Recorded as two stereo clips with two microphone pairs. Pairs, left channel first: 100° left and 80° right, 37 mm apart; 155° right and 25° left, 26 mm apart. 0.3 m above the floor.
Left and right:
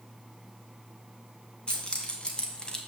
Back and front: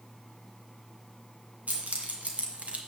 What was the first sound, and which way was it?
Keys jangling, 35° left.